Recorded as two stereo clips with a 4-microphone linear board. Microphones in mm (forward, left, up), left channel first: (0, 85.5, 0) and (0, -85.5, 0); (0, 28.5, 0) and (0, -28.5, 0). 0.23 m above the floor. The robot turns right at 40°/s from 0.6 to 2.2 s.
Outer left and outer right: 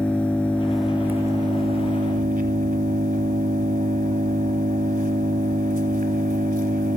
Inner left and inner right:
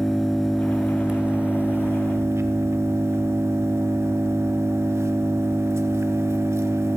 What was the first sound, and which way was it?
An engine running, 175° left.